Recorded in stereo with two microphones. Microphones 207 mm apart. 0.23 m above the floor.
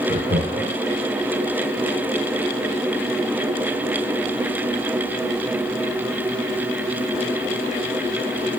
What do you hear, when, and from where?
0.1 s laughter: 60° right (ahead or behind), 2.0 m